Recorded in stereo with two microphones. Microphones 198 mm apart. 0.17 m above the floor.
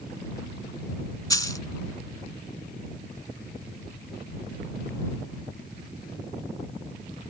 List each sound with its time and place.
1.3 s a dropped coin: 20° left (ahead or behind)